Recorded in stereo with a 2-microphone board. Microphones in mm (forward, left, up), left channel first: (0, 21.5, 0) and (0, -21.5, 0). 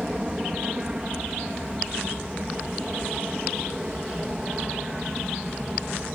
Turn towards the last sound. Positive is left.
turn(degrees=-15)  # may be behind; listen again after turning